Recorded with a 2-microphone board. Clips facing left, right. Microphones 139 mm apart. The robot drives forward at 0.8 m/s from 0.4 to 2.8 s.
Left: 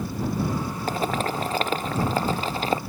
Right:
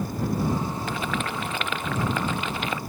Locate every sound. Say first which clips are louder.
0.9 s boiling: left 3 dB; 40° left (ahead or behind); by 2.8 s 35° left (ahead or behind)